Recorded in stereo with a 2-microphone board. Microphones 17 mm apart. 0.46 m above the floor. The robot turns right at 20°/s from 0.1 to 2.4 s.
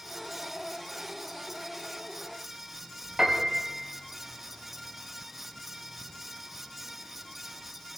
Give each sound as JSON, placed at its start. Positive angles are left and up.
{"t": 3.2, "sound": "a piano", "side_deg": -45, "distance_m": 2.5}